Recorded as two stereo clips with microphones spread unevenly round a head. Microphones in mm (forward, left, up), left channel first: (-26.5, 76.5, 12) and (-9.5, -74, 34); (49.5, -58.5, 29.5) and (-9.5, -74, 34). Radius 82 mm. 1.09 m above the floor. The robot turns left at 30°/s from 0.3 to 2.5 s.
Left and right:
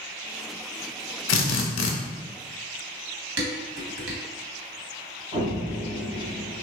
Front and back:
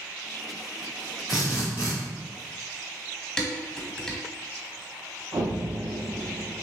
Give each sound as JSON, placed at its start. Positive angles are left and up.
{"t": 1.3, "sound": "a drill", "azimuth_deg": 105, "distance_m": 0.8}
{"t": 3.4, "sound": "dishes clattering", "azimuth_deg": -65, "distance_m": 1.3}
{"t": 5.3, "sound": "an explosion", "azimuth_deg": -130, "distance_m": 0.9}